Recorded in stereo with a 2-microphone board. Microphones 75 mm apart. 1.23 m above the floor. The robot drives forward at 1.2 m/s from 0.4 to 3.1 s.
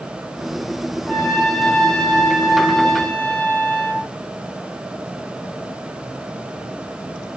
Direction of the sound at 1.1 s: 10° left (ahead or behind).